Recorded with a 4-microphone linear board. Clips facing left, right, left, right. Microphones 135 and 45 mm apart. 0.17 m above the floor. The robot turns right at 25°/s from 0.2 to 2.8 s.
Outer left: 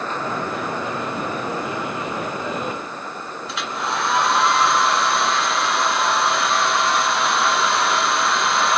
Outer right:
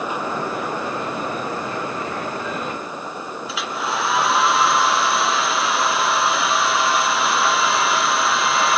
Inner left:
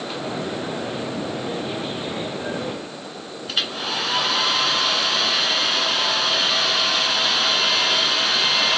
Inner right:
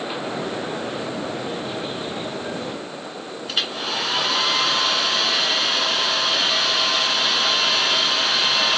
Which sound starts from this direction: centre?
A hair dryer, at 3.5 s.